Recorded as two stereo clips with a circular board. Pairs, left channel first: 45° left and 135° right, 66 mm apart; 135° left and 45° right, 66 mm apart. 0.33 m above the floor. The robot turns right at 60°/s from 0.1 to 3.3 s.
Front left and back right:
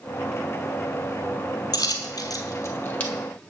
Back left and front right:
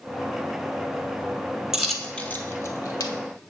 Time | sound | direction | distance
1.7 | a dropped coin | 35° left | 1.0 m